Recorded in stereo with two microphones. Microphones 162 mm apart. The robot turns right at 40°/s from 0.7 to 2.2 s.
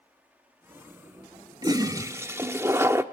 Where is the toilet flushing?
25° right (ahead or behind), 0.7 m; by 3.0 s 15° right (ahead or behind), 0.7 m.